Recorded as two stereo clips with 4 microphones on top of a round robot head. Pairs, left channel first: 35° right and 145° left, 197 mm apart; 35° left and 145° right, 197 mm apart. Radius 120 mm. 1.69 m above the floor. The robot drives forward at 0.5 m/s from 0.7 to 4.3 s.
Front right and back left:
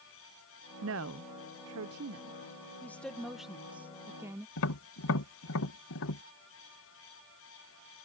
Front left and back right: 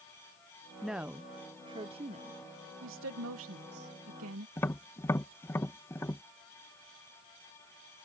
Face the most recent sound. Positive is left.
turn(degrees=-45)